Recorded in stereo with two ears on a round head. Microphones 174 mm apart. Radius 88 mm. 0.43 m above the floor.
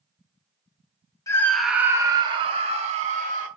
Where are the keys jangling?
I don't hear keys jangling.